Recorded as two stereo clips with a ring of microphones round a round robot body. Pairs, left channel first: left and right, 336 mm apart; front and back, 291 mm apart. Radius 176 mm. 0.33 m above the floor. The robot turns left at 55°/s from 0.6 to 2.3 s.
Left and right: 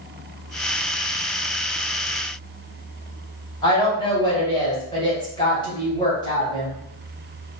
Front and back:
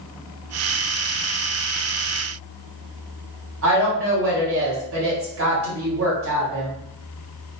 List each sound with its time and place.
3.6 s a woman speaking: 165° left, 1.8 m